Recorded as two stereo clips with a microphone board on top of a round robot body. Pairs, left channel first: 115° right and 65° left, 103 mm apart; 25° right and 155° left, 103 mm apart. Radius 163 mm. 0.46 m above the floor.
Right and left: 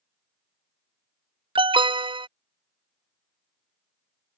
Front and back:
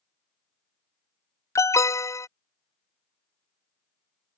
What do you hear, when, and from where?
1.6 s an alarm: 35° left